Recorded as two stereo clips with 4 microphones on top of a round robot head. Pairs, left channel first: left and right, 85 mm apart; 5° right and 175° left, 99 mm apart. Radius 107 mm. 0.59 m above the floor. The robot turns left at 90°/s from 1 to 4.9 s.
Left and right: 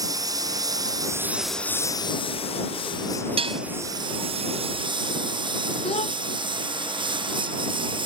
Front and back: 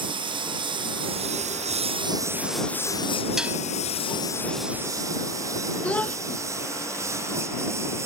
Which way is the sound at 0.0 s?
140° right.